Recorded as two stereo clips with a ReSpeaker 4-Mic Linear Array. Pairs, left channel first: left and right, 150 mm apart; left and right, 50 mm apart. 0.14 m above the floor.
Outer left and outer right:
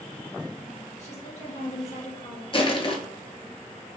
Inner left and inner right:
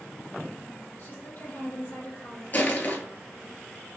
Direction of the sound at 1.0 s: 50° left (ahead or behind).